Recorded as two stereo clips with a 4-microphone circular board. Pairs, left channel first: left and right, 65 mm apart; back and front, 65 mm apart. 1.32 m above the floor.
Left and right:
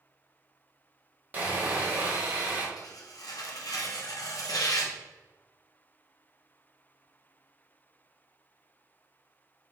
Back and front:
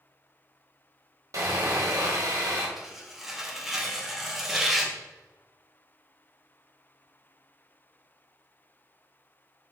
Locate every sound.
1.3 s sawing: 30° right, 1.2 m
2.8 s tearing paper: 85° left, 0.8 m